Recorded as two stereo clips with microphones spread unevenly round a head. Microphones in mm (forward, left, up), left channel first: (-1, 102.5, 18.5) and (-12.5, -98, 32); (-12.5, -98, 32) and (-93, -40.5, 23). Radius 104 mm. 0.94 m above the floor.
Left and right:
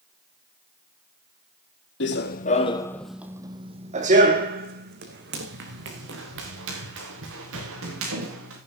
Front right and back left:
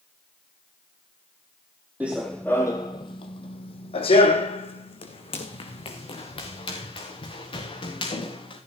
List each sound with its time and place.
2.0 s running footsteps: 60° left, 1.6 m; by 8.6 s 65° right, 7.5 m